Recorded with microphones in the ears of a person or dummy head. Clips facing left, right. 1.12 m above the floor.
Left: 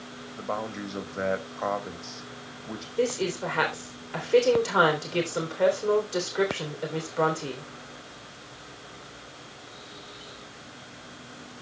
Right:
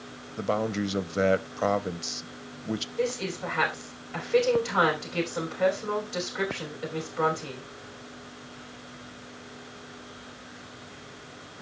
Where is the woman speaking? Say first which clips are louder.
Left 5 dB; 50° left (ahead or behind), 3.5 m.